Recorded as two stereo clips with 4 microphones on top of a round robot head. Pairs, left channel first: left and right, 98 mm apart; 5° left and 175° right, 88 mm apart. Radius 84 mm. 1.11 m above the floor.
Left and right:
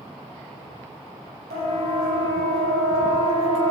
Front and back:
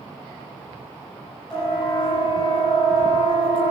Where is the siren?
80° right, 8.5 m; by 3.7 s 75° right, 8 m.